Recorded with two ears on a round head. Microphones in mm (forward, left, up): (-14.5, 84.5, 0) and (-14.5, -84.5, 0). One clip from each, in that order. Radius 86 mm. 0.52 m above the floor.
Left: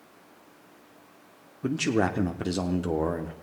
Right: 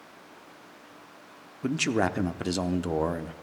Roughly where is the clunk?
I don't hear a clunk.